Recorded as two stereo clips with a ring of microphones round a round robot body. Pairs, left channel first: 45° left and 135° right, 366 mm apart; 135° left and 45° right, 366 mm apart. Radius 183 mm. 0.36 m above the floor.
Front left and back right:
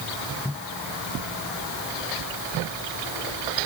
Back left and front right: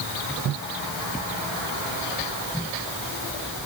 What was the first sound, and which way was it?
Only background noise.